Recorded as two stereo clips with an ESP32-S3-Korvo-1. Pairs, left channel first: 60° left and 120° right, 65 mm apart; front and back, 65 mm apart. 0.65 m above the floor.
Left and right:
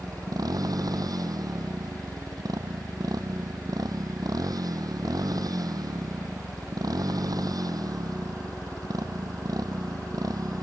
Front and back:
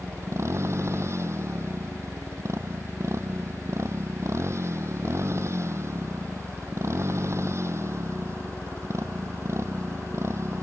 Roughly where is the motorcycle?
Behind right.